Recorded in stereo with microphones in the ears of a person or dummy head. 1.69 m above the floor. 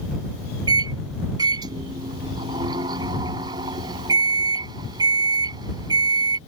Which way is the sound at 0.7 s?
30° right (ahead or behind).